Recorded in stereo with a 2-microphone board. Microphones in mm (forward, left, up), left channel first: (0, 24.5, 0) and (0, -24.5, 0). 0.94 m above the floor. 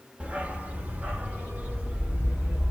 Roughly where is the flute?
I don't hear a flute.